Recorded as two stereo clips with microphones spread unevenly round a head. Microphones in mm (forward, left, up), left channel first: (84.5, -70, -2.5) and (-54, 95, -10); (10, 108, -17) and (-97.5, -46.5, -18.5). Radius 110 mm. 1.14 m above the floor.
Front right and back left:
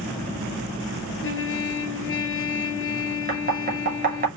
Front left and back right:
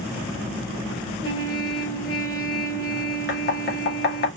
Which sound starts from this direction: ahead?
A trumpet, at 1.2 s.